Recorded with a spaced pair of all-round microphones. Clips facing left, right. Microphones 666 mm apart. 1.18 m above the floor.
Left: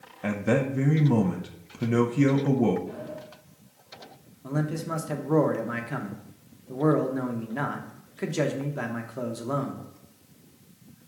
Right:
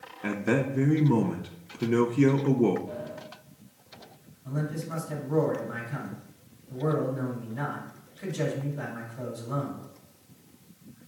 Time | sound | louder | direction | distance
0.2 | a man speaking | left 1 dB | 15° left (ahead or behind) | 0.5 m
2.9 | a sliding door | left 1 dB | 5° left (ahead or behind) | 3.5 m
4.4 | a man speaking | left 4 dB | 90° left | 1.1 m